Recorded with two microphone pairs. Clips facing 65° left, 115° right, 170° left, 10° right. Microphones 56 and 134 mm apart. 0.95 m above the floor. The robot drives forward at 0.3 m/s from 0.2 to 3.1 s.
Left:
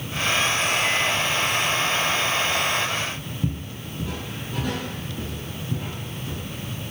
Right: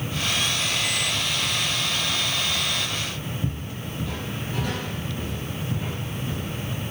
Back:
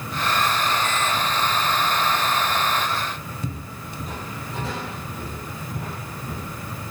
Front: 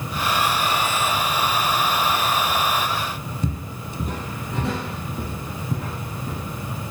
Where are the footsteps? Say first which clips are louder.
Left 1 dB, front 6 dB; 25° left, 1.1 m; by 6.4 s 35° right, 4 m.